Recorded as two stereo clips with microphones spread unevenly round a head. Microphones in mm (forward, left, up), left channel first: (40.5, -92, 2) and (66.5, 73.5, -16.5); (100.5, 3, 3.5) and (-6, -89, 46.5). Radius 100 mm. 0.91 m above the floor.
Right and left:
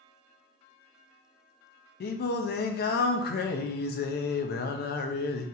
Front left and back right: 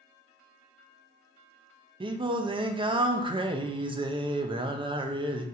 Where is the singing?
75° right, 0.5 m.